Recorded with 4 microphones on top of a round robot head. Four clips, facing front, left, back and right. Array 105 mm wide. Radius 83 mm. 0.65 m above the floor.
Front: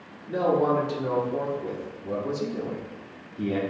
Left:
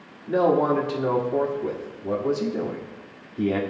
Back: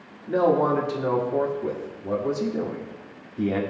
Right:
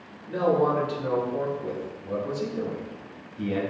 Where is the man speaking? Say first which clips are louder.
Left 3 dB, back 2 dB; 135° left, 1.6 m.